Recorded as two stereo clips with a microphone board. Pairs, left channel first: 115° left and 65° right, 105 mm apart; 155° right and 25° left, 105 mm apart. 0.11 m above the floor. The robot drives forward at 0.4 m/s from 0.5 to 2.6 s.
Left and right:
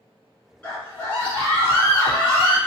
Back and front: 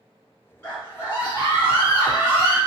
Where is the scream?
160° left, 1.6 m; by 2.6 s 170° left, 2 m.